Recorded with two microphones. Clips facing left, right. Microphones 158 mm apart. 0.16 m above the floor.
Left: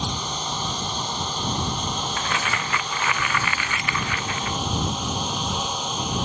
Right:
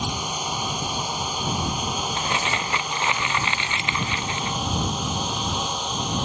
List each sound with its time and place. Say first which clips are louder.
0.0 s a drone: right 1 dB; 10° right (ahead or behind); by 6.2 s centre (ahead or behind)
2.2 s crumpling: right 1 dB; 25° right (ahead or behind)